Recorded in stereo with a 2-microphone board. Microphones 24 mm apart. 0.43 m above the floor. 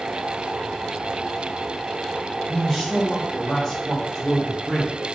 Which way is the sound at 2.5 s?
5° left (ahead or behind).